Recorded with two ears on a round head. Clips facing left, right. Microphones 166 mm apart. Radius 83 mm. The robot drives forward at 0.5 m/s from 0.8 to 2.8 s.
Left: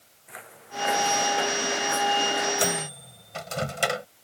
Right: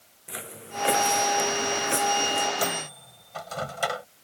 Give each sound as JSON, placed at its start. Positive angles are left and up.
{"t": 0.3, "sound": "footsteps", "side_deg": -45}
{"t": 2.6, "sound": "a microwave", "side_deg": 30}